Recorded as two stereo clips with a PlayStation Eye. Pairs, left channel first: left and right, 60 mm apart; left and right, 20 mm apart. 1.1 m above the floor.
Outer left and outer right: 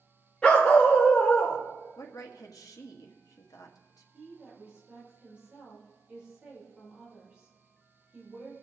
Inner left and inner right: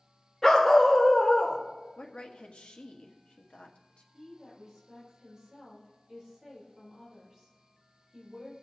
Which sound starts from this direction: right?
A woman speaking, at 4.1 s.